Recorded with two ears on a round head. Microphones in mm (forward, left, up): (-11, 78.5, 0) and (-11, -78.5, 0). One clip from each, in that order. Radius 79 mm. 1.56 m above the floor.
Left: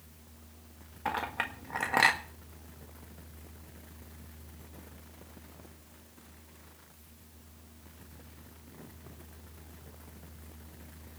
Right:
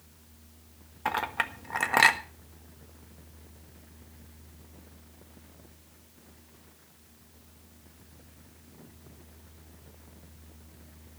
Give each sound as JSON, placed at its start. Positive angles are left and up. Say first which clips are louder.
{"t": 1.1, "sound": "a clink", "louder": "right 4 dB", "side_deg": -20, "distance_m": 1.4}